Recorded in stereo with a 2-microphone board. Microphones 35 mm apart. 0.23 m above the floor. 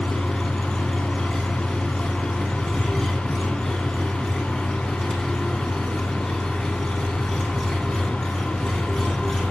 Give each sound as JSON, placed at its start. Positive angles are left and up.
{"t": 0.0, "sound": "an engine running", "side_deg": 5, "distance_m": 3.5}